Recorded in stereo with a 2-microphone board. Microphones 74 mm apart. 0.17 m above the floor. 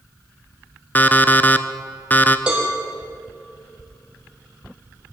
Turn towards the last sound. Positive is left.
turn(degrees=-15)  # may be behind; listen again after turning